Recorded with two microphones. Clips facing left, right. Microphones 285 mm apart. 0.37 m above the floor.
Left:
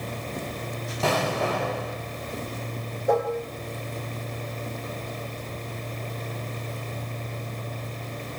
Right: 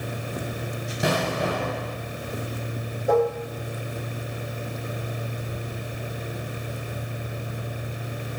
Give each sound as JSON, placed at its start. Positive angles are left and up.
{"t": 1.0, "sound": "an explosion", "side_deg": -20, "distance_m": 1.6}
{"t": 3.1, "sound": "dishes clattering", "side_deg": -5, "distance_m": 3.5}